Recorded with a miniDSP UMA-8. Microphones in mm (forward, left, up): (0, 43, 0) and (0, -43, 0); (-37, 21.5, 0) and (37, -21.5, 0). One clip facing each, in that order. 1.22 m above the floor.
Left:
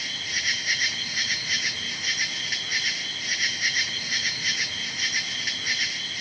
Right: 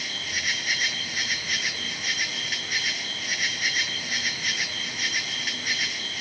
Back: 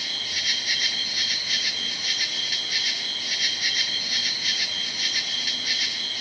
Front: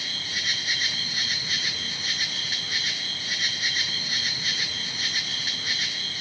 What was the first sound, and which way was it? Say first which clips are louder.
An insect: even, front 1 dB; 5° left.